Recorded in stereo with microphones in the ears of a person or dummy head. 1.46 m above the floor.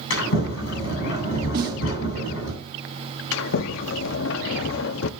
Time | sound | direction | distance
0.1 | a sliding door | 75° left (ahead or behind) | 8.5 m
1.5 | a snare drum | 45° right (ahead or behind) | 1.5 m
3.3 | a sliding door | 70° left (ahead or behind) | 0.6 m